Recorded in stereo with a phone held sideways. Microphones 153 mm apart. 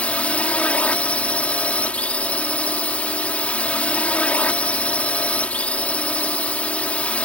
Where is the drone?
10° left (ahead or behind).